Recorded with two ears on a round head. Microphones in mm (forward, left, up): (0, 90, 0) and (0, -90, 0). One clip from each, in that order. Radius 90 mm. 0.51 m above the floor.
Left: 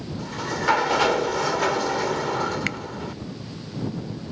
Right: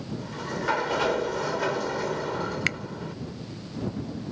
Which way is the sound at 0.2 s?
25° left (ahead or behind).